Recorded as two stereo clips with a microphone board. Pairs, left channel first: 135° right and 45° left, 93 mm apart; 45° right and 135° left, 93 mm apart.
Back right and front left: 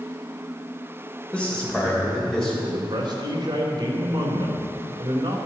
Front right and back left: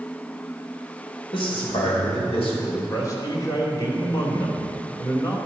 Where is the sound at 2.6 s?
5° left, 3 m.